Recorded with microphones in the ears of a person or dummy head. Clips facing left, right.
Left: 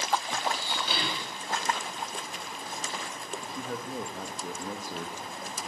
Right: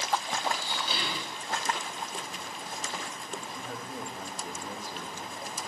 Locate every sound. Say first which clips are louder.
0.4 s dishes clattering: left 1 dB; 60° left (ahead or behind), 7.5 m
3.4 s a man speaking: left 4 dB; 90° left, 3 m